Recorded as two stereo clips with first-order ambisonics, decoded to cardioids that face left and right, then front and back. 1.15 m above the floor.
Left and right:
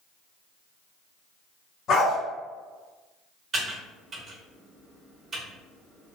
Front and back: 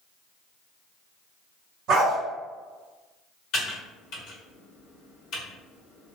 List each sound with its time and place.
1.9 s a dog barking: 140° left, 1.5 m
3.5 s typing on a keyboard: 25° right, 1.2 m